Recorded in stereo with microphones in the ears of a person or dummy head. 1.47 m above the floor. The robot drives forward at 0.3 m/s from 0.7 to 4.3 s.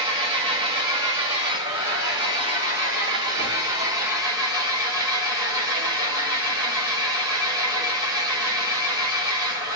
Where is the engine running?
20° right (ahead or behind), 1.4 m; by 9.8 s 10° right (ahead or behind), 2.5 m.